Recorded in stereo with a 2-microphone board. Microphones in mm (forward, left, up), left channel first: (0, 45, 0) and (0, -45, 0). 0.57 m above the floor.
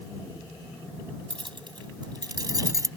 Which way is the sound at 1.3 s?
65° right (ahead or behind).